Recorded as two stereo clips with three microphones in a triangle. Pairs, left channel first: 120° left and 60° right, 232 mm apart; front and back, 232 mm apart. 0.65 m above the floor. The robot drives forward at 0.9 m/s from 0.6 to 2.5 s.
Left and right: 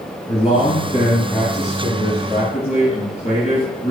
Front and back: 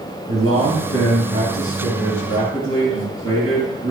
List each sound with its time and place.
0.3 s a man speaking: straight behind, 3.5 m